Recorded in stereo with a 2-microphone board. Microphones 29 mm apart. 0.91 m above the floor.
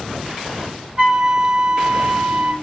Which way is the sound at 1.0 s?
35° right (ahead or behind).